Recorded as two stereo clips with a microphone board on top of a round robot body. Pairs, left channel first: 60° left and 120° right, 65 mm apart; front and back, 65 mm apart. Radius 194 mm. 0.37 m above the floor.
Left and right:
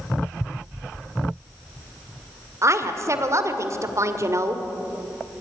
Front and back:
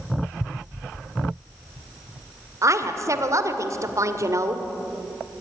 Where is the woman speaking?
150° right, 2.0 m.